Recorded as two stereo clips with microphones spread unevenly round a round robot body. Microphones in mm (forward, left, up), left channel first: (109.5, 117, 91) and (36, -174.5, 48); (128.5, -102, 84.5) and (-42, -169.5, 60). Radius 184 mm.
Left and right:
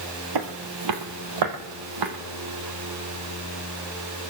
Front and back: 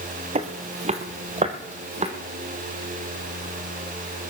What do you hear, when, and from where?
0.3 s footsteps: 105° right, 1.3 m